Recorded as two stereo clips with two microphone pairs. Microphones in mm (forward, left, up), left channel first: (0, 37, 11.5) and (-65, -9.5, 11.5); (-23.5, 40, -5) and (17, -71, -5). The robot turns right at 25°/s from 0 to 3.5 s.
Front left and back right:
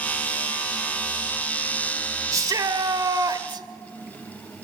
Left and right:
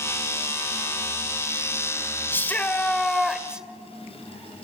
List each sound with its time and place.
2.3 s a shout: straight behind, 1.3 m; by 3.7 s 150° right, 1.3 m